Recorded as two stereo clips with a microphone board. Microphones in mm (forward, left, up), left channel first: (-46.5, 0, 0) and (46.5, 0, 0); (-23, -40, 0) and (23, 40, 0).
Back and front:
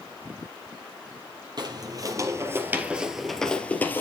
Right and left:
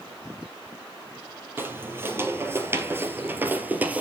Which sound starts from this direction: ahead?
Footsteps, at 1.6 s.